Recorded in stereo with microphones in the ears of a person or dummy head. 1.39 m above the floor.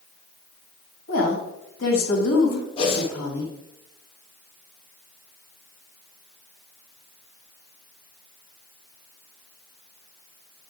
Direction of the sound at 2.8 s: 30° left (ahead or behind).